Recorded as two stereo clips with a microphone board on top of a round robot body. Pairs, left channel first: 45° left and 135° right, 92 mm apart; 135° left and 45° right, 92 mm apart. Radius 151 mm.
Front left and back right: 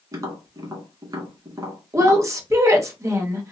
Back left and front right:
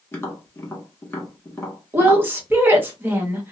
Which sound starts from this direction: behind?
Tapping, at 0.1 s.